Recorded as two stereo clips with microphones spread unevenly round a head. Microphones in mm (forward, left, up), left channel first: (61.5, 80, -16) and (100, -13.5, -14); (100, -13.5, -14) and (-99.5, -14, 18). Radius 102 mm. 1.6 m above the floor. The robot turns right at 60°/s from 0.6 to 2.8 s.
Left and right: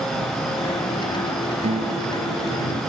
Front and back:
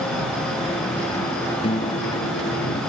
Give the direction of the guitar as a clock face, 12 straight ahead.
2 o'clock.